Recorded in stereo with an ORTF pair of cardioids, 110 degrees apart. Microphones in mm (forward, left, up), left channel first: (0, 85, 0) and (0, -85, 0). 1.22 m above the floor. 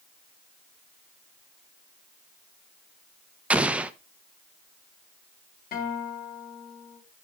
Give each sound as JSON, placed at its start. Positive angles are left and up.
{"t": 3.5, "sound": "an explosion", "azimuth_deg": -10, "distance_m": 0.5}
{"t": 5.7, "sound": "a guitar", "azimuth_deg": 60, "distance_m": 3.5}